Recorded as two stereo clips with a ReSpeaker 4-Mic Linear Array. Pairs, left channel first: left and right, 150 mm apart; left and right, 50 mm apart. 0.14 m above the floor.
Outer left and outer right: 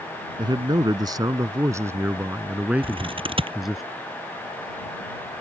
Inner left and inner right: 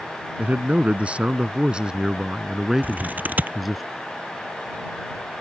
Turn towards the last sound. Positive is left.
turn(degrees=-35)  # may be behind; listen again after turning